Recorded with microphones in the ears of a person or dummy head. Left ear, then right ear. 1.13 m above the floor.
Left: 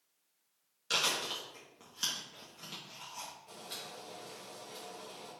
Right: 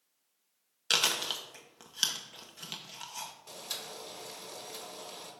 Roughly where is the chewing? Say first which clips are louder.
Right 4 dB; right.